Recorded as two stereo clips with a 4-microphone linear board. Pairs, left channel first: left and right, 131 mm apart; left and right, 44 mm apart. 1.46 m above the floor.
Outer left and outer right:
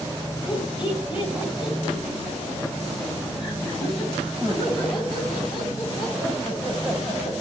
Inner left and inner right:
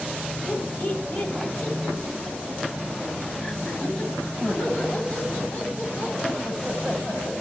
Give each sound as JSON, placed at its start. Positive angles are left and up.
{"t": 0.5, "sound": "laughter", "side_deg": 40, "distance_m": 7.5}